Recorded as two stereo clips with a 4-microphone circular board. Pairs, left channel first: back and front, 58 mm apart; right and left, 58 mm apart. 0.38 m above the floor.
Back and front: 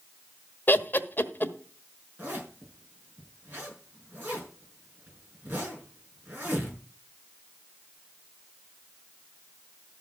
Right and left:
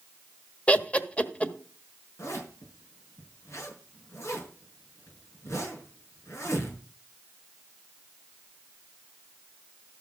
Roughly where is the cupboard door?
No cupboard door in this recording.